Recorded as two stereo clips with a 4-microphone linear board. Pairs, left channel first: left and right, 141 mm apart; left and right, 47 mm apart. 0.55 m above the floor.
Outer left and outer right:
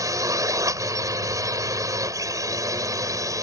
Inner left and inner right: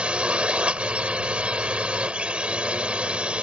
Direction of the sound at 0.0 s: 20° right (ahead or behind).